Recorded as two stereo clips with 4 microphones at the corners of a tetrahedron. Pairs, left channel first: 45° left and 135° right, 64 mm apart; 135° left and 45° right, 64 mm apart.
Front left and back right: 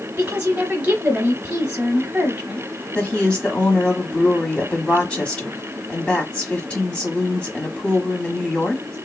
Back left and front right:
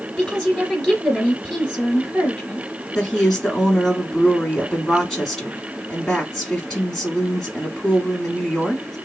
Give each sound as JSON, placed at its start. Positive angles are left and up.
{"t": 0.2, "sound": "a woman speaking", "azimuth_deg": -170, "distance_m": 1.1}
{"t": 3.0, "sound": "a woman speaking", "azimuth_deg": 60, "distance_m": 1.1}